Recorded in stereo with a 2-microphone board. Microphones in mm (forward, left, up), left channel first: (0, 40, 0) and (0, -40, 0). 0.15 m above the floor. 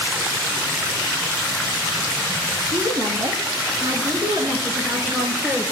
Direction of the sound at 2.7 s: 55° right (ahead or behind).